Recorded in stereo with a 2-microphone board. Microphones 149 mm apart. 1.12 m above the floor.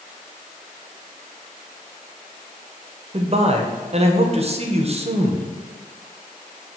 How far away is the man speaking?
About 0.6 m.